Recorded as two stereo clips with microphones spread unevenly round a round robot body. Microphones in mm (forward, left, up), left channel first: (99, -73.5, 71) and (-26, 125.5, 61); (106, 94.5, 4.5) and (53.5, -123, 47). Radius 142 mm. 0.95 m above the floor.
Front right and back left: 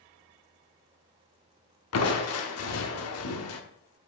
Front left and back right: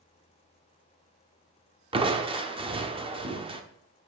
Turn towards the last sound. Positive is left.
turn(degrees=-40)